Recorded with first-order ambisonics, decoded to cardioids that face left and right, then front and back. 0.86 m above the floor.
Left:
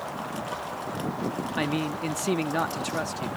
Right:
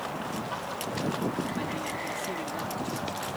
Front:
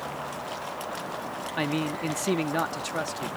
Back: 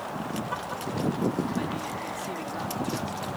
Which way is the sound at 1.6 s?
45° left.